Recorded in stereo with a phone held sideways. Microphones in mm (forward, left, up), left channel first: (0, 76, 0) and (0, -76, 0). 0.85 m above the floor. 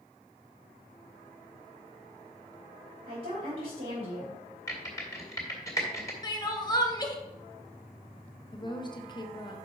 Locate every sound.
3.1 s a woman speaking: 60° right (ahead or behind), 3 m
4.7 s typing on a keyboard: 20° left (ahead or behind), 1.9 m
6.2 s crying: 25° left (ahead or behind), 1.0 m
8.5 s a woman speaking: 30° left (ahead or behind), 0.9 m